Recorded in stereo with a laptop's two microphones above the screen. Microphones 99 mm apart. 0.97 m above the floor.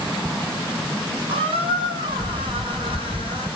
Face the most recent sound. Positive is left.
turn(degrees=-65)  # may be behind; listen again after turning